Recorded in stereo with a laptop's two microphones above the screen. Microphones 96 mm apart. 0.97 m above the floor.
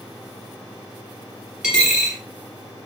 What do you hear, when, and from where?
1.6 s a dropped coin: 5° right (ahead or behind), 1.1 m